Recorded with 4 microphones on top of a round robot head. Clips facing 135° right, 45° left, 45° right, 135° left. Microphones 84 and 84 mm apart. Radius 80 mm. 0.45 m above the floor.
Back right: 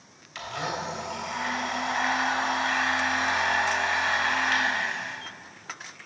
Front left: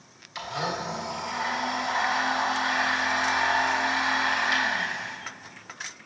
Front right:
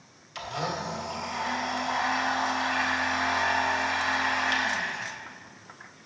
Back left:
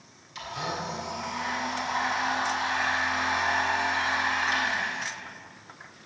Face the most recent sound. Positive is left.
turn(degrees=-30)